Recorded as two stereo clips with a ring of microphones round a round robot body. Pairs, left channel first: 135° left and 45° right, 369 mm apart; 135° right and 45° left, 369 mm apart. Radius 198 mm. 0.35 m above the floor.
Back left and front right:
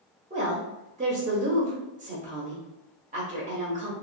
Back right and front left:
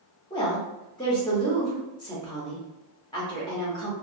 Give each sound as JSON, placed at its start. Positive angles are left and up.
{"t": 0.3, "sound": "a woman speaking", "azimuth_deg": -75, "distance_m": 0.8}